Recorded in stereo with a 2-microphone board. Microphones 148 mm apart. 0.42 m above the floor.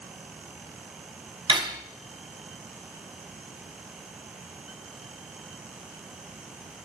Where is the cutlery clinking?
30° right (ahead or behind), 1.9 m.